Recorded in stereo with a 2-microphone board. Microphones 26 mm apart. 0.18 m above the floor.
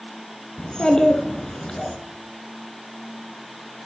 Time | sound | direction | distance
0.6 | a child speaking | 30° left (ahead or behind) | 1.3 m